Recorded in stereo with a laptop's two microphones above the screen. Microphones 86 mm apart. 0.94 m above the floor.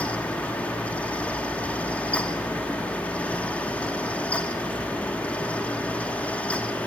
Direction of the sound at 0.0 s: 15° left (ahead or behind).